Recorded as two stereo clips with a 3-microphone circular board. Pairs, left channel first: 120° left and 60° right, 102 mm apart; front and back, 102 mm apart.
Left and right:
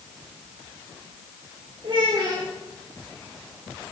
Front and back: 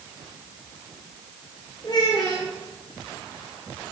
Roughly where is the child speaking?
Ahead right.